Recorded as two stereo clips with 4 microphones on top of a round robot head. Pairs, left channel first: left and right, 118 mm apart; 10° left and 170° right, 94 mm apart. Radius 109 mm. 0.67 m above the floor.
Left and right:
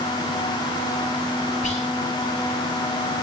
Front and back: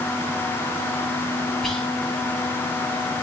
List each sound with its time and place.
1.6 s whispering: 95° left, 6.5 m